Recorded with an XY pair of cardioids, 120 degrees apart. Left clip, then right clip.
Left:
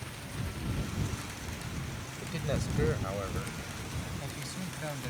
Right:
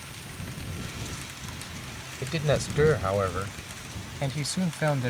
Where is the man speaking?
60° right; by 5.1 s 75° right.